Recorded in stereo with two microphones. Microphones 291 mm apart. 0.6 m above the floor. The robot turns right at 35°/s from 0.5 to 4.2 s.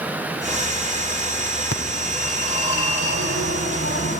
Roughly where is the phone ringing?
Ahead left.